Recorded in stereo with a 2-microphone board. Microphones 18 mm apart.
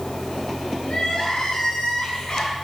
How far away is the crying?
About 5 m.